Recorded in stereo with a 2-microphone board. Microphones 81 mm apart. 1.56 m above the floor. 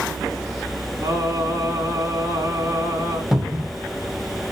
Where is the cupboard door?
5° right (ahead or behind), 0.9 m.